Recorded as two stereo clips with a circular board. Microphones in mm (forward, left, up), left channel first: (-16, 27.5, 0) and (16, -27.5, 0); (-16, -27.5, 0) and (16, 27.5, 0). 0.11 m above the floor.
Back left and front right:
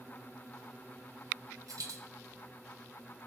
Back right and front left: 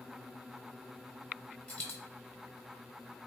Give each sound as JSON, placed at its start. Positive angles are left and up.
{"t": 1.7, "sound": "a dropped coin", "azimuth_deg": -55, "distance_m": 1.3}